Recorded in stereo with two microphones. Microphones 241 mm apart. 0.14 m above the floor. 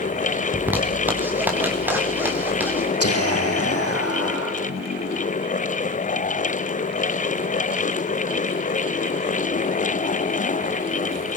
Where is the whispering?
75° left (ahead or behind), 6 m.